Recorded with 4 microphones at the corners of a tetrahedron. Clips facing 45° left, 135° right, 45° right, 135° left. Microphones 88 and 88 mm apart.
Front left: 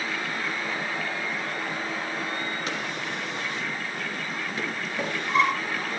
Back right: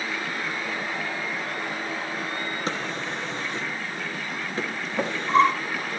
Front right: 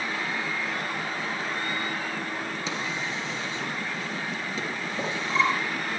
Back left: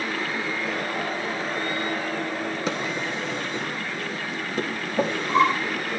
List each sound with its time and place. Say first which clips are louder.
2.7 s a drawer: back right 2 dB, back left 4 dB; 165° left, 1.9 m